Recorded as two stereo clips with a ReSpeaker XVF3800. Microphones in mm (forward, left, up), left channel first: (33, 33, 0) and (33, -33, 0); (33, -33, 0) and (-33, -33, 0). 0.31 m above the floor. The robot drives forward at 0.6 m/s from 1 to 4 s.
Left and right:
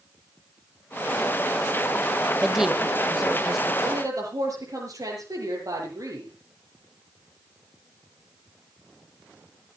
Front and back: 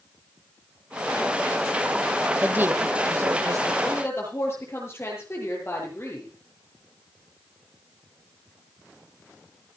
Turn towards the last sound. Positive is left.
turn(degrees=-55)